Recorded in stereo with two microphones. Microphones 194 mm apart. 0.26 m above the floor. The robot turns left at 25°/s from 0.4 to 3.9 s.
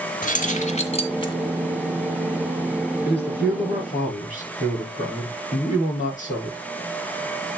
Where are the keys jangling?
45° left (ahead or behind), 1.7 m; by 1.3 s 25° left (ahead or behind), 1.7 m.